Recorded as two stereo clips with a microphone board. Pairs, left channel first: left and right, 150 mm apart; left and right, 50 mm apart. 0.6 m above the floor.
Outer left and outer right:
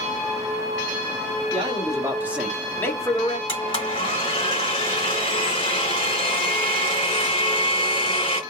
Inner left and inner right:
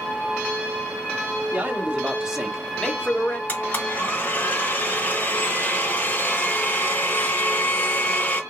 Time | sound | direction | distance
1.5 | a man speaking | 35° right (ahead or behind) | 1.1 m
3.5 | a blender | 35° left (ahead or behind) | 2 m